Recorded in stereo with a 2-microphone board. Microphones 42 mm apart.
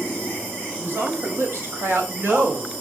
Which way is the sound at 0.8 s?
80° right.